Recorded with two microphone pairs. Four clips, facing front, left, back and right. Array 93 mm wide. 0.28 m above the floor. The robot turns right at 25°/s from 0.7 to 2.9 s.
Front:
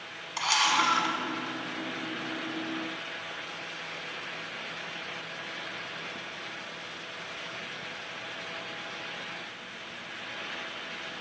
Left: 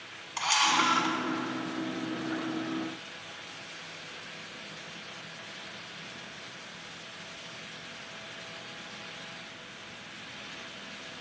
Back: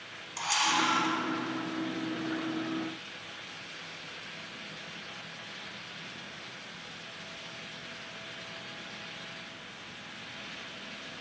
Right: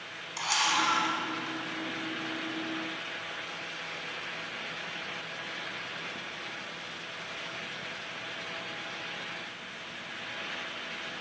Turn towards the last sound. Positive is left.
turn(degrees=95)